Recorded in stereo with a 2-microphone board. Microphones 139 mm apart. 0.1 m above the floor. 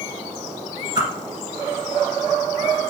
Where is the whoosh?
35° right (ahead or behind), 1.8 m.